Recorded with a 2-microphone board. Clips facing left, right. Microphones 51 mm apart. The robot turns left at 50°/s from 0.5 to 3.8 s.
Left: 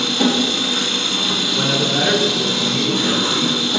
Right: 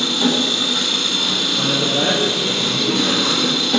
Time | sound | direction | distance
0.0 | an engine running | 60° left | 3 m
1.5 | a man speaking | 20° left (ahead or behind) | 1.3 m